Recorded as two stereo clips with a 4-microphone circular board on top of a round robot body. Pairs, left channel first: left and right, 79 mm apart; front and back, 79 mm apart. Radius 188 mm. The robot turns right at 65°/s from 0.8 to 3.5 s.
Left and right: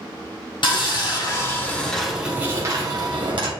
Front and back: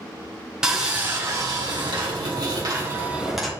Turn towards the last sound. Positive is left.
turn(degrees=-85)